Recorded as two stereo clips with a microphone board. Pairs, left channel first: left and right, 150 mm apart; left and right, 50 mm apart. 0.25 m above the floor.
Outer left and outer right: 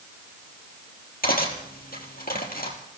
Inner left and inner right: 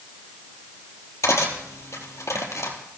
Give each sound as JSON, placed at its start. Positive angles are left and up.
{"t": 1.2, "sound": "cutlery clinking", "side_deg": 75, "distance_m": 3.5}